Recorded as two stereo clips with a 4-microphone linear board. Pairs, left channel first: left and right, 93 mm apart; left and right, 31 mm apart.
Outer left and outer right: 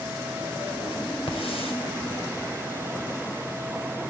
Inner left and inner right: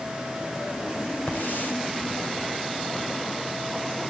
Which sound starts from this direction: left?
A hiss, at 1.3 s.